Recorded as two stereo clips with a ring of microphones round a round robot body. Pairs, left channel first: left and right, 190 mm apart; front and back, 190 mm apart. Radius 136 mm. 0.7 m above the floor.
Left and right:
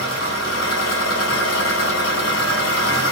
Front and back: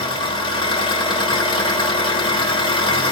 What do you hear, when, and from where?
0.0 s an engine running: 65° left, 2 m